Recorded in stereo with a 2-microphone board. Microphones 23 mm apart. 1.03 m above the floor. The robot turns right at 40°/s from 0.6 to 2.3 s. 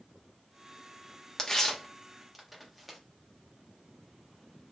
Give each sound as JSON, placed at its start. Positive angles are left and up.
{"t": 1.4, "sound": "tearing paper", "side_deg": 30, "distance_m": 0.8}